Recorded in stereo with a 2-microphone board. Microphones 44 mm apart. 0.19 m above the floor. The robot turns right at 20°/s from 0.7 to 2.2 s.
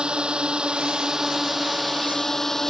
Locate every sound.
0.0 s a drone: 20° right; by 2.7 s 10° left